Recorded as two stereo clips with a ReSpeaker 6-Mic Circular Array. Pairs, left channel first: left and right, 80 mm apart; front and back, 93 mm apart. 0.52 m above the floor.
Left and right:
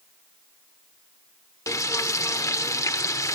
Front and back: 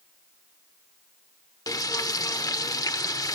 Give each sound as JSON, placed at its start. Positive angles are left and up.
{"t": 1.7, "sound": "frying", "azimuth_deg": 45, "distance_m": 0.6}